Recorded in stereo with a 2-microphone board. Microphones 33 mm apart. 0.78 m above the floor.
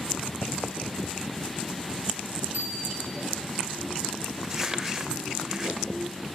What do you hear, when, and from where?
2.5 s a bicycle bell: 65° right (ahead or behind), 6 m
4.4 s crumpling: 15° right (ahead or behind), 2.5 m